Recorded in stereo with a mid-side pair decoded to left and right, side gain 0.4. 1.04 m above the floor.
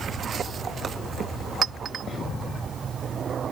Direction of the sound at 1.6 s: 55° right.